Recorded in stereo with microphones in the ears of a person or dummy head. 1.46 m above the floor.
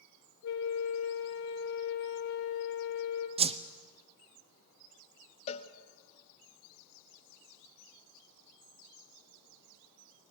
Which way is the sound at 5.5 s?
35° left (ahead or behind).